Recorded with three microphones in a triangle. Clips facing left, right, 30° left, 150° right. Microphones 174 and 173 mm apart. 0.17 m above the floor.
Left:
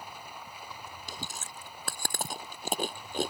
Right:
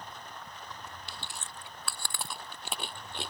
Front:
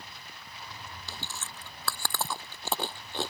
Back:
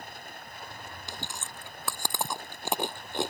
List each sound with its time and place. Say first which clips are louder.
0.0 s running water: left 1 dB, back 5 dB; 170° left
1.1 s chewing: left 3 dB, back 2 dB; 135° left